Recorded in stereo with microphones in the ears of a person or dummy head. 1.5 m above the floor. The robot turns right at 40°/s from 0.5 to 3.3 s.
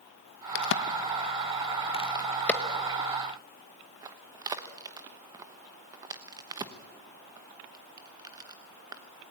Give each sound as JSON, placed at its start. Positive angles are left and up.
{"t": 0.6, "sound": "a crack", "side_deg": 65, "distance_m": 1.0}